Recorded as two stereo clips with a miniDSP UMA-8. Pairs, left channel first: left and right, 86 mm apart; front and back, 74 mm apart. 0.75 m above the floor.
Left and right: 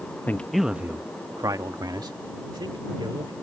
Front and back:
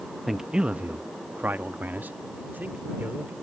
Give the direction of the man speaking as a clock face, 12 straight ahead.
9 o'clock.